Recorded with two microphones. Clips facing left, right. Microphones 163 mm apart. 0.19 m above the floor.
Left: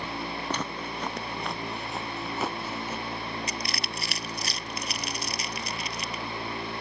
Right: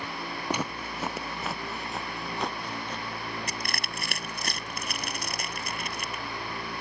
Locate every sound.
0.5 s footsteps: 10° right (ahead or behind); by 3.0 s 10° left (ahead or behind)
3.5 s crushing: 50° right (ahead or behind)